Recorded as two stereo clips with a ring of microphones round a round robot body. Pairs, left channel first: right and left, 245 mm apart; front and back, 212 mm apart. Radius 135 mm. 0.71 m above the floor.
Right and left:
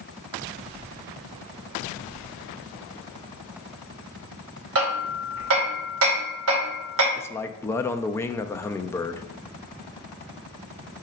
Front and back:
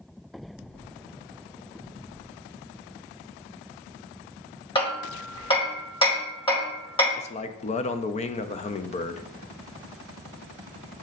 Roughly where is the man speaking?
Ahead.